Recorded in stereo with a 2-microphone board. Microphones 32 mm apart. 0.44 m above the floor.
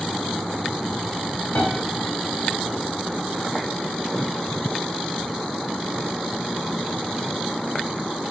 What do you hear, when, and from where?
1.6 s a piano: 65° left (ahead or behind), 1.5 m